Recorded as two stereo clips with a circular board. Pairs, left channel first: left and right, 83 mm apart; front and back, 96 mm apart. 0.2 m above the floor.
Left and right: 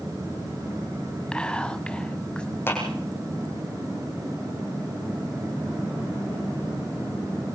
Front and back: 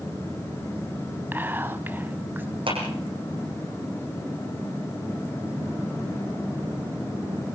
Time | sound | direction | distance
1.3 | whispering | 150° left | 1.0 m
2.7 | a clap | 155° left | 10 m